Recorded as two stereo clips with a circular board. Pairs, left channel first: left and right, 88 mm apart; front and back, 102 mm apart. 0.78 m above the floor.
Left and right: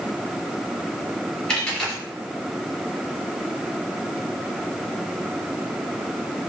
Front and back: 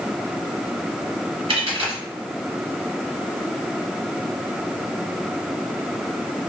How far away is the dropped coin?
About 1.0 m.